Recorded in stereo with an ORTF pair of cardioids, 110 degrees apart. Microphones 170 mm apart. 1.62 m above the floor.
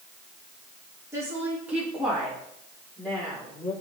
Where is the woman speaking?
15° right, 2.5 m; by 3.7 s 10° left, 4.5 m.